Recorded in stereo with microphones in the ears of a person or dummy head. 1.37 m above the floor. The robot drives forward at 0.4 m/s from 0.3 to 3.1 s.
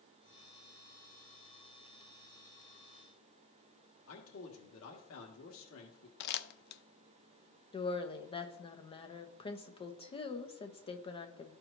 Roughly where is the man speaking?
Left.